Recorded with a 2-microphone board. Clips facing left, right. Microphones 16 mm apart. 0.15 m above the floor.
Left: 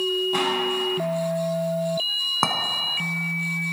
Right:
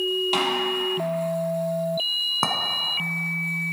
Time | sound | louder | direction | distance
0.3 | a snare drum | even | 55° right (ahead or behind) | 3 m
2.4 | a clink | left 3 dB | 15° left (ahead or behind) | 0.7 m